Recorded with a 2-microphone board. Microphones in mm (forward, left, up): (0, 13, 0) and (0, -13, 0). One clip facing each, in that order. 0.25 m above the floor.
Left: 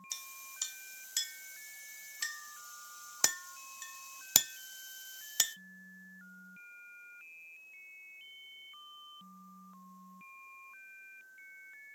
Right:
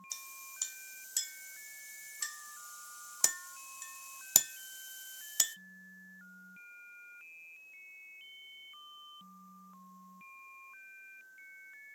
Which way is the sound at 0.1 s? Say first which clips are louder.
Left 2 dB; 25° left (ahead or behind).